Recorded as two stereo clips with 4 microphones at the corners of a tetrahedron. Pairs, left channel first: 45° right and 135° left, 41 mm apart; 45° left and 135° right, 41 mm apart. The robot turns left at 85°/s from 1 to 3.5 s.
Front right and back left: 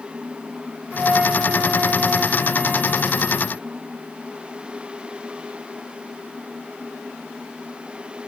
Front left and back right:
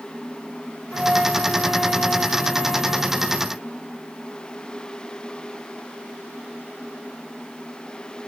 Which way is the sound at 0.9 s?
155° left.